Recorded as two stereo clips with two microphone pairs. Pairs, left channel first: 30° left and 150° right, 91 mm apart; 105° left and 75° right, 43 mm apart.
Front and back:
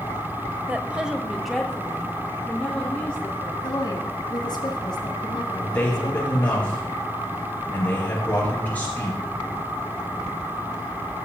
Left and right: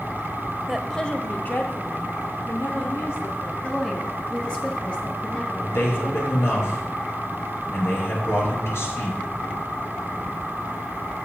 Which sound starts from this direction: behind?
A woman speaking, at 0.7 s.